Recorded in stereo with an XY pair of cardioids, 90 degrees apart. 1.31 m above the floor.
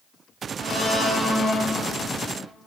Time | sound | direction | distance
0.6 | a blender | straight ahead | 1.6 m